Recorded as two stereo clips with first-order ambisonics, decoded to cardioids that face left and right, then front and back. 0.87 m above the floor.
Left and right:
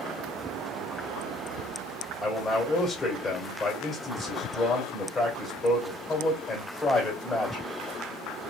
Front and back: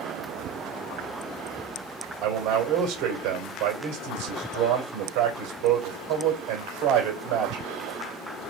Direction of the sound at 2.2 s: 155° left.